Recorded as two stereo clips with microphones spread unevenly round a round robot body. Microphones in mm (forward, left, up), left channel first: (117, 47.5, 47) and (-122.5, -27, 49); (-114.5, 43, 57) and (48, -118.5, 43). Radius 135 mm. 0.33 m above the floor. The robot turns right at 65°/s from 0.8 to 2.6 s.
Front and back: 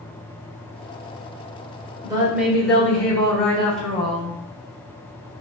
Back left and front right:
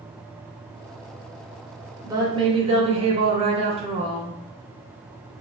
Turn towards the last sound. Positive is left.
turn(degrees=-65)